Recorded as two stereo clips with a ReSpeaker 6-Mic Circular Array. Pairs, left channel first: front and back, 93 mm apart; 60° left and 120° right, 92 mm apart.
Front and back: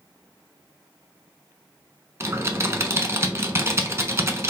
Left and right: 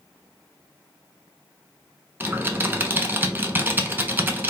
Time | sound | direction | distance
2.2 | typing on a keyboard | 160° right | 0.6 m